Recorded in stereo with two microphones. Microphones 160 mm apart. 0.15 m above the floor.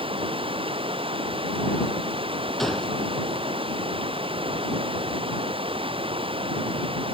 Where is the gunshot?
Centre (ahead or behind).